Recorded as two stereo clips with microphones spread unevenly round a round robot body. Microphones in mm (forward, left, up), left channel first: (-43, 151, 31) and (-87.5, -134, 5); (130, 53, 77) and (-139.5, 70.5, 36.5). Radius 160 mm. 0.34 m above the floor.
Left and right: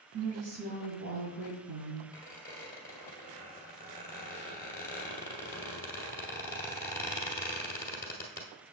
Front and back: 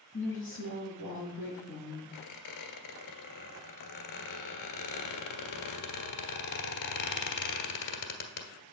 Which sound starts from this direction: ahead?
A squeak, at 2.1 s.